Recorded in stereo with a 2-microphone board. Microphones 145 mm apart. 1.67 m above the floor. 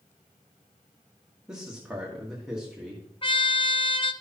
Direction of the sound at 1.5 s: 5° right (ahead or behind).